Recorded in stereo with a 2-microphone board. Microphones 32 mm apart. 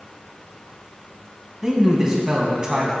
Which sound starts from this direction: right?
A man speaking, at 1.6 s.